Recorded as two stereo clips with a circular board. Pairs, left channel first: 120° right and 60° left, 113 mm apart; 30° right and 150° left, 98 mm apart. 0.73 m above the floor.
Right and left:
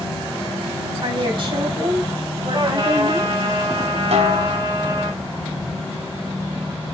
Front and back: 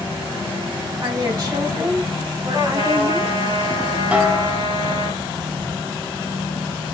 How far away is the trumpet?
About 8 m.